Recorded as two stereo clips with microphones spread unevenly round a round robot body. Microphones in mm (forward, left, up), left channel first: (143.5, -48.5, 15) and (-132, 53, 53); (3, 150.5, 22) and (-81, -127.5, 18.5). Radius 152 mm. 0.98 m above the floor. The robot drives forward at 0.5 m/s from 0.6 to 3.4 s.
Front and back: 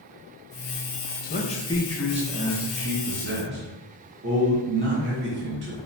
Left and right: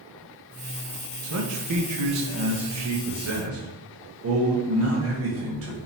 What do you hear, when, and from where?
1.2 s a man speaking: 70° right, 0.7 m; by 5.8 s 145° right, 1.1 m